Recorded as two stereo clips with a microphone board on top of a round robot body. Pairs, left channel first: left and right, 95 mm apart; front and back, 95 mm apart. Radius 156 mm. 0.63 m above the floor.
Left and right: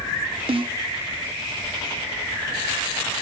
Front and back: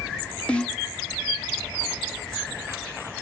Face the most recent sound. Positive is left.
turn(degrees=-80)